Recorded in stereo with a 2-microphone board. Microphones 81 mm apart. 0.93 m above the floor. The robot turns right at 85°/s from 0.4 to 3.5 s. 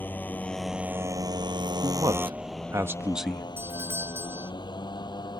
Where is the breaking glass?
No breaking glass in this recording.